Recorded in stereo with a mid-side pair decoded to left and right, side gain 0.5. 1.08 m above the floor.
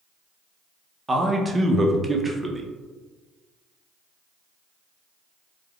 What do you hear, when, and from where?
1.1 s a man speaking: 20° right, 0.6 m